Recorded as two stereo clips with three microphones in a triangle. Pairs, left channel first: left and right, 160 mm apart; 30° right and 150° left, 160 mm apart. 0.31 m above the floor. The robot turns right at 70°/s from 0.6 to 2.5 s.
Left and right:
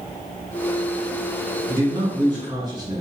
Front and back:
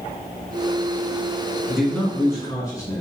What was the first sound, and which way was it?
A man speaking, 125° right.